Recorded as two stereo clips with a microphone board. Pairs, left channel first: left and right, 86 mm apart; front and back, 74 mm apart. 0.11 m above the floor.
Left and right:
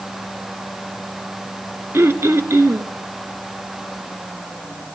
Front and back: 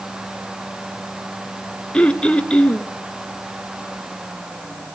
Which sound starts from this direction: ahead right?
Throat clearing, at 1.9 s.